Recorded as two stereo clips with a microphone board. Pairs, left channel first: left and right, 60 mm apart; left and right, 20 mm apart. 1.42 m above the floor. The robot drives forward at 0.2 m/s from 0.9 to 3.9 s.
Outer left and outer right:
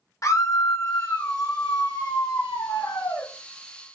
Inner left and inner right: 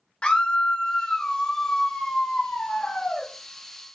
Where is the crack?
No crack in this recording.